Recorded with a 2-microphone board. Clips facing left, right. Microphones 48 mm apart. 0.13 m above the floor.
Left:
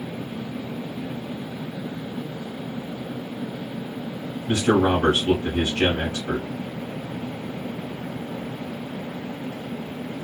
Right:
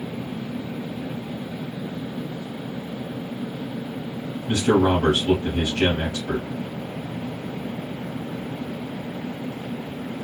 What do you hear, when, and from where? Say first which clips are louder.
4.5 s a man speaking: even; 25° left (ahead or behind), 1.2 m